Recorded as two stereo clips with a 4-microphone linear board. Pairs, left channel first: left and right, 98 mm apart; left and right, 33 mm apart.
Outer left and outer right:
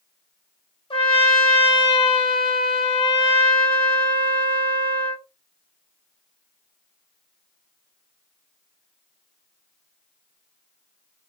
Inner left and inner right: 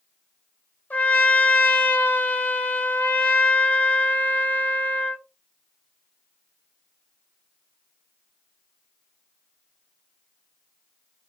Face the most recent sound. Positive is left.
turn(degrees=70)  # may be behind; listen again after turning